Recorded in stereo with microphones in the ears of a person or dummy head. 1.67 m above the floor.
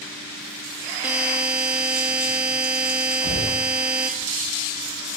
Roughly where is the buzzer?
Centre.